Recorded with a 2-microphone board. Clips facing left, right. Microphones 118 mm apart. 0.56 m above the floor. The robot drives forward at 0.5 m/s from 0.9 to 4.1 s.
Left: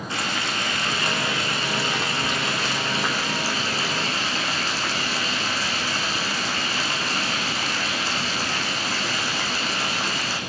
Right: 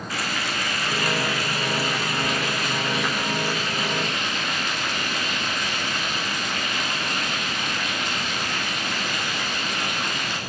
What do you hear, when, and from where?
0.1 s frying: 25° left (ahead or behind), 8.5 m; by 10.4 s 30° left (ahead or behind), 7.5 m